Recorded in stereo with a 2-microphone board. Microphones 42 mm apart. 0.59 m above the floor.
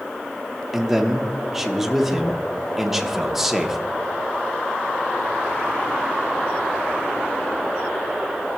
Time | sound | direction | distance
0.7 | a man speaking | 5° right (ahead or behind) | 0.8 m